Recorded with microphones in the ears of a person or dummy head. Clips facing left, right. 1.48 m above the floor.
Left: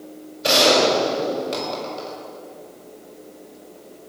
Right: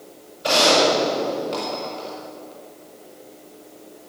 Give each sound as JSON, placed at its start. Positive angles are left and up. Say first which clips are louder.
{"t": 0.4, "sound": "a gunshot", "louder": "left 1 dB", "side_deg": 35, "distance_m": 5.0}